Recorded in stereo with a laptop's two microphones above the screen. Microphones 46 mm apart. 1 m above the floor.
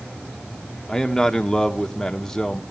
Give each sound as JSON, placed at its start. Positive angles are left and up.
{"t": 0.9, "sound": "a man speaking", "side_deg": 10, "distance_m": 1.2}